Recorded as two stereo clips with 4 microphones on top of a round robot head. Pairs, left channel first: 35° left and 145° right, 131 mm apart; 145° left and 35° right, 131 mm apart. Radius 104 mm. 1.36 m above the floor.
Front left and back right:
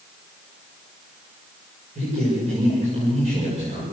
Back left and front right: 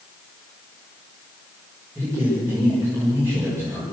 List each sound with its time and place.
1.9 s a man speaking: 105° right, 6 m